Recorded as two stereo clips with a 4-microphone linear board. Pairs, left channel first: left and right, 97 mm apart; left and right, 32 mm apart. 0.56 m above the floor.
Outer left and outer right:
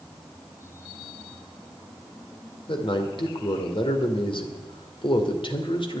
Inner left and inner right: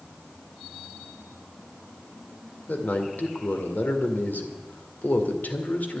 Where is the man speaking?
60° left (ahead or behind), 2 m.